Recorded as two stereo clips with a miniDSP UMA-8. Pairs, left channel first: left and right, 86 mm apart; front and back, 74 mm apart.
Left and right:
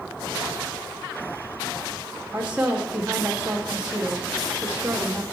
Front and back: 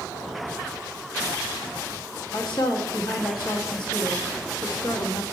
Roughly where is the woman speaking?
Ahead.